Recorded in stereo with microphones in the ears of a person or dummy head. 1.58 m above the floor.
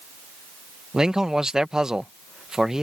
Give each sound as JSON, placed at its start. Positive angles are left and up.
{"t": 0.9, "sound": "a man speaking", "side_deg": -5}